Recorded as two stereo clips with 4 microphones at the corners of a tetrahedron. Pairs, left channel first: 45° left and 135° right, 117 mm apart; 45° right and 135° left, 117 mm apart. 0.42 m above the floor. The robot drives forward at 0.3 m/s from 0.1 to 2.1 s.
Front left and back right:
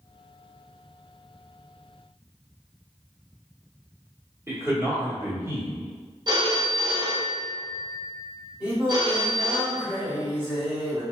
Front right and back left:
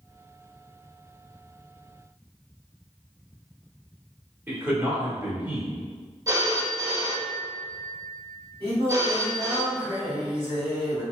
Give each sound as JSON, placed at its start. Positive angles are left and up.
{"t": 4.5, "sound": "a man speaking", "azimuth_deg": 180, "distance_m": 0.9}
{"t": 6.3, "sound": "a phone ringing", "azimuth_deg": -175, "distance_m": 0.5}
{"t": 8.6, "sound": "singing", "azimuth_deg": 155, "distance_m": 1.1}